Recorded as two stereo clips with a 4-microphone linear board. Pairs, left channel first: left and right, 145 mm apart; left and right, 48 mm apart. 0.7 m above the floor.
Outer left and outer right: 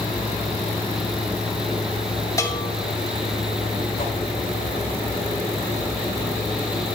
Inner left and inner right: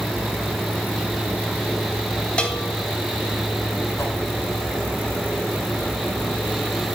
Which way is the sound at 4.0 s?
75° left (ahead or behind).